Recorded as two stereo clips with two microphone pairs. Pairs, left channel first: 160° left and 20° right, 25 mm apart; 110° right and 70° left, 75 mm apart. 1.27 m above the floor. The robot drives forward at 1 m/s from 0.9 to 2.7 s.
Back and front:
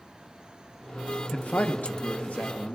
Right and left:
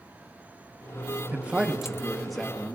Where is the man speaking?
140° left, 0.8 m; by 2.8 s 165° left, 2 m.